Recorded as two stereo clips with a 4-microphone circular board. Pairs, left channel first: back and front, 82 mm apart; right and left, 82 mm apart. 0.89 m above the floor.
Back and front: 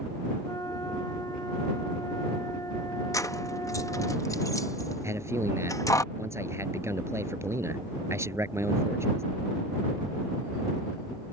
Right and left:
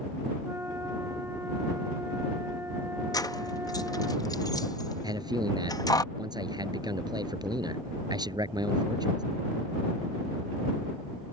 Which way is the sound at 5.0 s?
55° left.